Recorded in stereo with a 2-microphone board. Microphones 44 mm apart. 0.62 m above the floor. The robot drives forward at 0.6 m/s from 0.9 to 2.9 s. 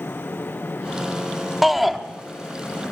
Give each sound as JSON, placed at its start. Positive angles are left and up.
{"t": 1.6, "sound": "a shout", "side_deg": -5, "distance_m": 0.9}